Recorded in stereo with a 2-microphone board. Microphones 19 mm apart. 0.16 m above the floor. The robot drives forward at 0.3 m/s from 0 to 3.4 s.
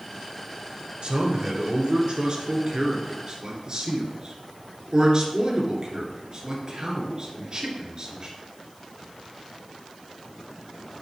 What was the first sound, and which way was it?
A man speaking, 50° right (ahead or behind).